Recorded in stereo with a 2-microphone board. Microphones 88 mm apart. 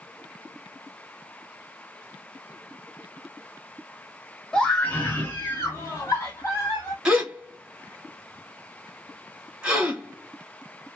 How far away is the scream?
About 1.1 m.